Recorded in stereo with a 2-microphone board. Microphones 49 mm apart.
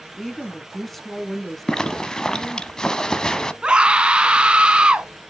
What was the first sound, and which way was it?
A woman speaking, centre (ahead or behind).